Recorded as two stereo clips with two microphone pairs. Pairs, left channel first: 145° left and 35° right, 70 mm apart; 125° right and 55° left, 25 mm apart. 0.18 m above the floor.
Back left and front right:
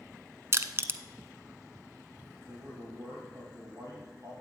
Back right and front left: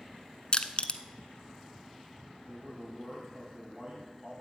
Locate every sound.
0.5 s crushing: 80° right, 0.6 m
2.5 s a man speaking: 5° right, 7 m